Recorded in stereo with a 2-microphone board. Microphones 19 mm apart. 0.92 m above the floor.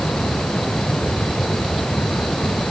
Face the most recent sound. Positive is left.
No sound to turn to.